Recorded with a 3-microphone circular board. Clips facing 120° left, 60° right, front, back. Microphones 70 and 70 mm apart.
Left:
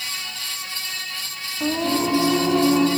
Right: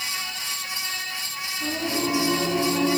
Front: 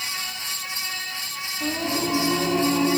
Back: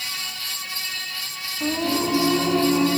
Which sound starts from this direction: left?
Singing, at 1.6 s.